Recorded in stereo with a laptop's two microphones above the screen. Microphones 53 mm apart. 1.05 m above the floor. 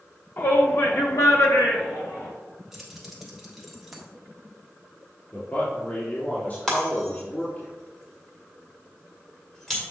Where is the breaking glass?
10° left (ahead or behind), 1.8 m.